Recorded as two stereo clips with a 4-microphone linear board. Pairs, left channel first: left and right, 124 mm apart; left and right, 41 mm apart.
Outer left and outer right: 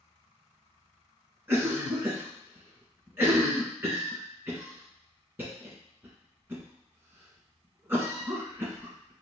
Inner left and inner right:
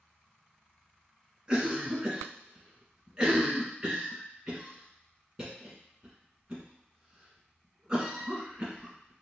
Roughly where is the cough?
Centre.